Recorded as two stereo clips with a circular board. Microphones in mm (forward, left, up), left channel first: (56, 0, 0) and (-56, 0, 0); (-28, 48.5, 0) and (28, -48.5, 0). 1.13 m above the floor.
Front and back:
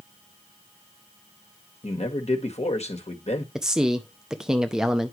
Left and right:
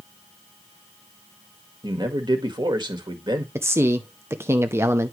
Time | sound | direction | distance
1.8 | a man speaking | 15° right | 1.6 m
3.5 | a man speaking | 100° right | 0.6 m